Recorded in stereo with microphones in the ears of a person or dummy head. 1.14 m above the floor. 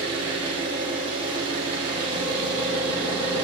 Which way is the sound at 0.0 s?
25° right (ahead or behind).